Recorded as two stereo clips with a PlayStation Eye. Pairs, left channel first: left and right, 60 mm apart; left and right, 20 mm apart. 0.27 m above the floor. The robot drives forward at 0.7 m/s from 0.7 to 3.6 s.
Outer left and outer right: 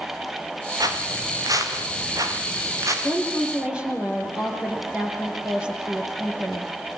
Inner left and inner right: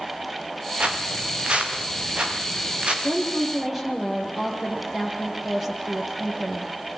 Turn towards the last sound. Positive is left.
turn(degrees=-15)  # may be behind; listen again after turning